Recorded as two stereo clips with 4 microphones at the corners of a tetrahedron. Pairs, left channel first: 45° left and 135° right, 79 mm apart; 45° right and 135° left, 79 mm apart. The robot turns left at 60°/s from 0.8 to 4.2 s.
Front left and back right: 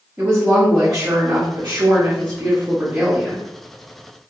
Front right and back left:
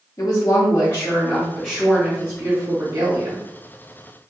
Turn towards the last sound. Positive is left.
turn(degrees=80)